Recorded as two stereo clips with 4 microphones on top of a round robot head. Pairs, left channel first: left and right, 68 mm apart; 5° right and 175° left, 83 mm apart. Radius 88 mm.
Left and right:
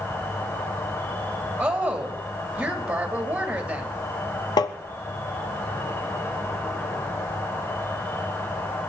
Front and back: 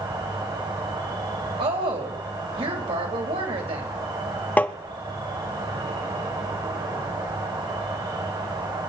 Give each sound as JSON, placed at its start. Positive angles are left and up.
{"t": 0.0, "sound": "an insect", "azimuth_deg": 145, "distance_m": 3.5}
{"t": 1.6, "sound": "a woman speaking", "azimuth_deg": -160, "distance_m": 3.5}
{"t": 4.6, "sound": "tapping", "azimuth_deg": 65, "distance_m": 0.8}